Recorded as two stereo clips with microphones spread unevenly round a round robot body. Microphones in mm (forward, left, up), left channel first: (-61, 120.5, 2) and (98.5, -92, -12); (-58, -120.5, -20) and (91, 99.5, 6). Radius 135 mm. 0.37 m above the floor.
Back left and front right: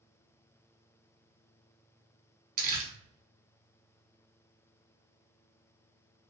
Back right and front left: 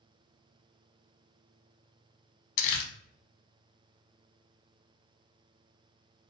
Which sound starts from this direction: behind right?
Crumpling, at 2.6 s.